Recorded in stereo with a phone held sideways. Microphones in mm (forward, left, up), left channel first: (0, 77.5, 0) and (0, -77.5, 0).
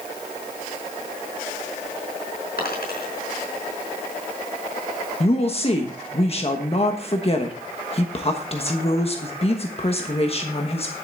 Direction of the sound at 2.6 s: 85° left.